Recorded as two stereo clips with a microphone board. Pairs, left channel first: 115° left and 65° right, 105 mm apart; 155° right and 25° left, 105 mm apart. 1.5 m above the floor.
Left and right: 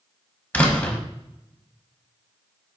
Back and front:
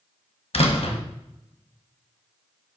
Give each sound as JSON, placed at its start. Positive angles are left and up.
{"t": 0.5, "sound": "a door slam", "azimuth_deg": -175, "distance_m": 1.1}